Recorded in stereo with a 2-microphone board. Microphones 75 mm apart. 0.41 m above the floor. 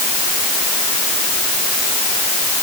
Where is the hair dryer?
I don't hear a hair dryer.